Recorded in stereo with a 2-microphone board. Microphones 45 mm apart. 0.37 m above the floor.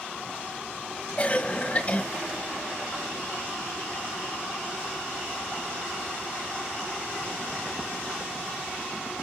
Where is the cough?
25° left (ahead or behind), 1.7 m.